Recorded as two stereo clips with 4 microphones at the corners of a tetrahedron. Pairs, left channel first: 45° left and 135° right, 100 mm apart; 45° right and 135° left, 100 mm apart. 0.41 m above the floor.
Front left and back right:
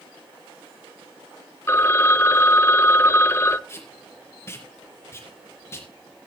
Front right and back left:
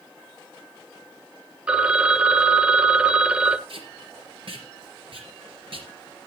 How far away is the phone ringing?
About 0.7 m.